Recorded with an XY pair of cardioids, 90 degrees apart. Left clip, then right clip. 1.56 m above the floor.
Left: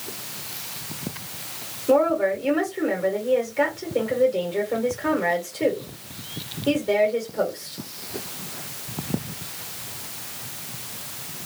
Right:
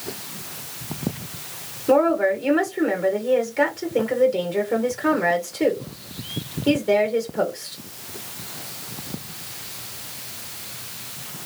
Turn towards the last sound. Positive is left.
turn(degrees=-40)